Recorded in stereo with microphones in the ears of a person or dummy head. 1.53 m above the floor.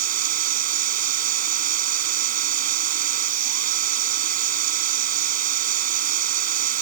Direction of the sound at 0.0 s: 50° right (ahead or behind).